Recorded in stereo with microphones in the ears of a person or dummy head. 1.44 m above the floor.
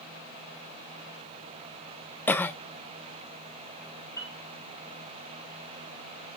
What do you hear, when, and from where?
2.3 s a cough: 5° left (ahead or behind), 0.5 m
4.2 s a piano: 15° left (ahead or behind), 3.5 m